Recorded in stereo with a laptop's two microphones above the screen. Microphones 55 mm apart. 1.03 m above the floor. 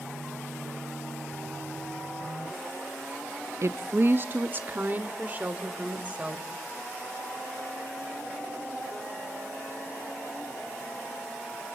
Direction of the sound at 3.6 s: 55° right (ahead or behind).